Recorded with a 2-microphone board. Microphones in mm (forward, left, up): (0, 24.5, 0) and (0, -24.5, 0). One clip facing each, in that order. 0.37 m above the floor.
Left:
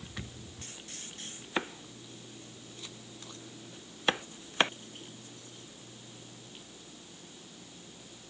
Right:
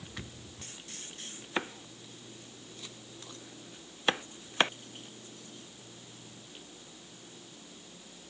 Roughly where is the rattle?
No rattle in this recording.